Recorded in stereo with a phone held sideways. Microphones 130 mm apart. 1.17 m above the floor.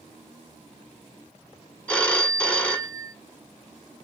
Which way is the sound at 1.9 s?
10° left (ahead or behind).